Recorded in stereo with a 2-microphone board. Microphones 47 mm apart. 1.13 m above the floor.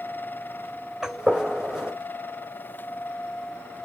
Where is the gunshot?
10° right (ahead or behind), 4 m.